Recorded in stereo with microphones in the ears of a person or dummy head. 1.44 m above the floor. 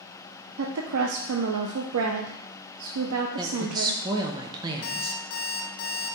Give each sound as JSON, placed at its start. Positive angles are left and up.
{"t": 0.6, "sound": "a woman speaking", "side_deg": -85, "distance_m": 0.6}
{"t": 3.4, "sound": "a woman speaking", "side_deg": -15, "distance_m": 0.8}
{"t": 4.8, "sound": "an alarm clock", "side_deg": 60, "distance_m": 1.0}